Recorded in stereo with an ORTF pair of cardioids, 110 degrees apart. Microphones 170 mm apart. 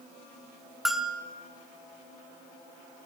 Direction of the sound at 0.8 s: Straight ahead.